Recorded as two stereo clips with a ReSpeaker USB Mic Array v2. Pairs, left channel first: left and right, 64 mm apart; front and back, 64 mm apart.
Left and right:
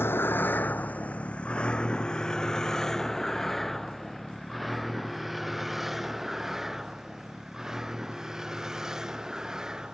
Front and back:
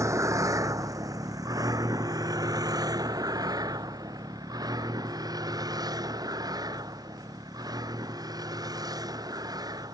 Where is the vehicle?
145° left; by 9.9 s 170° right.